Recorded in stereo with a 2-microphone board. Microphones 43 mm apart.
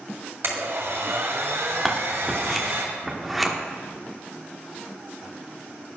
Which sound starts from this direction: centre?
Scissors, at 1.9 s.